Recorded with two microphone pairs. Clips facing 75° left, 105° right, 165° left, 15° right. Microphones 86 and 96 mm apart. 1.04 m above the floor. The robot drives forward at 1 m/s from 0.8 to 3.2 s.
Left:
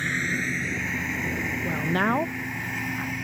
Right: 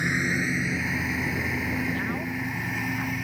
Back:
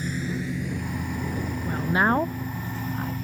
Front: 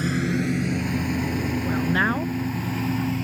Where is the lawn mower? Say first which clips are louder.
Right 2 dB, front 6 dB; 30° right; by 3.2 s 20° right.